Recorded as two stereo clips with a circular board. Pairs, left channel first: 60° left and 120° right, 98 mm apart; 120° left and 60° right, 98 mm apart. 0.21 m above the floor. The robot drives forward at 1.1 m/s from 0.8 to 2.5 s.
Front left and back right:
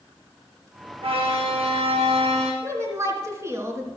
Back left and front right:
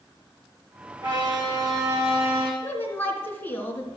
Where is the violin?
100° right, 4 m; by 2.5 s 125° right, 4.5 m.